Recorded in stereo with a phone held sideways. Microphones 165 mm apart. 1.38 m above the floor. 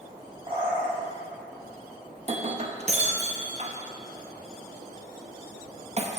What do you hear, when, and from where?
0.5 s a bird: 30° right (ahead or behind), 3 m
2.2 s breaking glass: 40° right (ahead or behind), 0.8 m